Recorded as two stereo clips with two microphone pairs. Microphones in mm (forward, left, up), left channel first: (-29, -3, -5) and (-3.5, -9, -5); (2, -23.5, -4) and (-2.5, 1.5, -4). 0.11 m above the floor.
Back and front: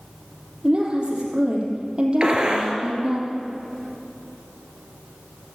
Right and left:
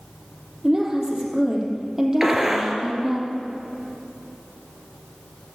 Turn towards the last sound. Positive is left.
turn(degrees=30)